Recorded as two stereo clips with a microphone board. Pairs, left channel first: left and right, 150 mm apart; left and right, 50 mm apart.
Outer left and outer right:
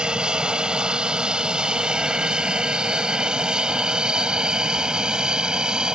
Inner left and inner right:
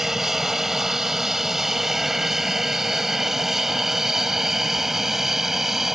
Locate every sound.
0.0 s an aircraft: 5° right (ahead or behind)